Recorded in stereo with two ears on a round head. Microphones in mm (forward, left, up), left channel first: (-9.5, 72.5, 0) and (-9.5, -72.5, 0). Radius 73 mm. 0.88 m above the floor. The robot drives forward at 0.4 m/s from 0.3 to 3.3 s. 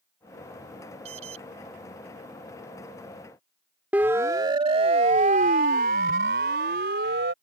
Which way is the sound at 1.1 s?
45° right (ahead or behind).